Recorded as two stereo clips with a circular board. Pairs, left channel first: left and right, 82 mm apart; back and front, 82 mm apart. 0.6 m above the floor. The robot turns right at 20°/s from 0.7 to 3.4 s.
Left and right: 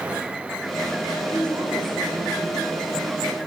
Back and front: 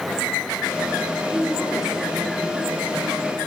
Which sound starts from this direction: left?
A woman speaking, at 1.3 s.